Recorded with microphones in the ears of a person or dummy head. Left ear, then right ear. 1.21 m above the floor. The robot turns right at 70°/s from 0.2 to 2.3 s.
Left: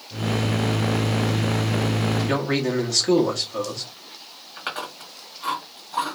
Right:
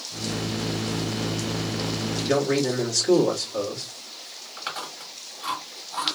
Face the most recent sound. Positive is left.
turn(degrees=10)  # may be behind; listen again after turning